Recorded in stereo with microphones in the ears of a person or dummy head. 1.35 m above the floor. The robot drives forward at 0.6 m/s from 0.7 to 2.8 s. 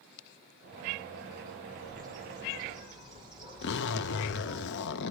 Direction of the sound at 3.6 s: 55° left (ahead or behind).